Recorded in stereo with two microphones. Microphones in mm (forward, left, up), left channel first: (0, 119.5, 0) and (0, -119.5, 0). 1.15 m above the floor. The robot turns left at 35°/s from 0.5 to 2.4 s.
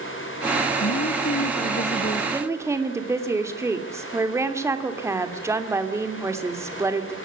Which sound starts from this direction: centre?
A woman speaking, at 2.3 s.